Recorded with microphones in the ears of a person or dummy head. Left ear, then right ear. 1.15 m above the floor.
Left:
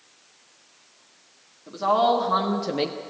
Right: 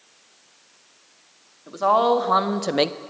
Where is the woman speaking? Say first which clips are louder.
Right 2 dB; 25° right (ahead or behind), 2 m; by 3.0 s 65° right (ahead or behind), 0.5 m.